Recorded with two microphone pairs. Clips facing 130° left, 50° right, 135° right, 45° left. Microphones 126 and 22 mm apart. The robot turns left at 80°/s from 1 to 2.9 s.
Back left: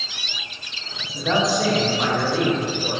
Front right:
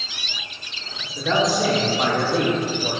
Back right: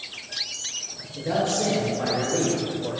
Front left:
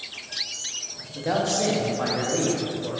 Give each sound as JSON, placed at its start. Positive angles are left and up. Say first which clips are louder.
{"t": 1.1, "sound": "a man speaking", "louder": "even, even", "azimuth_deg": 65, "distance_m": 0.8}